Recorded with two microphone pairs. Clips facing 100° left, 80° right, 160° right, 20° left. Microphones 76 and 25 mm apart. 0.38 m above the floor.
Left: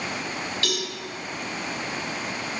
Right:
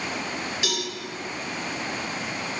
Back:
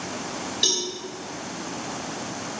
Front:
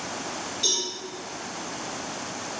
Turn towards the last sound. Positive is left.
turn(degrees=-155)